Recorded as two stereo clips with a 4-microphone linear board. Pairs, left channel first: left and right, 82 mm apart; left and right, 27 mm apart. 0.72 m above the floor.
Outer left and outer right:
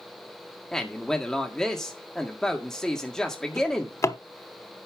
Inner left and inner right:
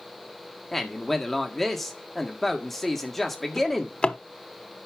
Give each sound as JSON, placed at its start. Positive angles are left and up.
{"t": 0.7, "sound": "a man speaking", "side_deg": 5, "distance_m": 1.7}
{"t": 3.6, "sound": "a drawer", "side_deg": 40, "distance_m": 0.9}